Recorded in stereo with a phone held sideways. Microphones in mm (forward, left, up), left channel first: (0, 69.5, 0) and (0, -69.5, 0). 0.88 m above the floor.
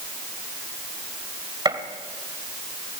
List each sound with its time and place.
1.6 s a gunshot: 30° right (ahead or behind), 1.9 m